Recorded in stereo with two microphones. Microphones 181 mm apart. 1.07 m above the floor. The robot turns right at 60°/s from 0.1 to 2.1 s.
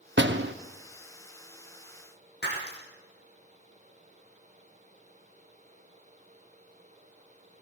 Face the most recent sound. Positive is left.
turn(degrees=65)  # may be behind; listen again after turning